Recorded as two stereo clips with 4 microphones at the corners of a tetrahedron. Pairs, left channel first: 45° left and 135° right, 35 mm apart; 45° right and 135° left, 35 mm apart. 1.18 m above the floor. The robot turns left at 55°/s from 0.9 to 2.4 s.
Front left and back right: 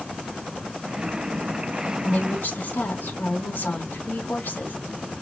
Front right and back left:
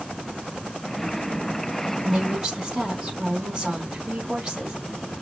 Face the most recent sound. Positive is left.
turn(degrees=65)